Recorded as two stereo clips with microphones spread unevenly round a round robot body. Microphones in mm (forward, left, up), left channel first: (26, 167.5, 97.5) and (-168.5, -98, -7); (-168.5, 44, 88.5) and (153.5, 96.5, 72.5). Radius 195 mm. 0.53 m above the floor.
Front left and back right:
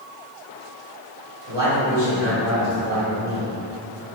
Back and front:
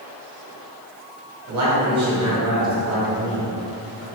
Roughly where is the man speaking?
Ahead.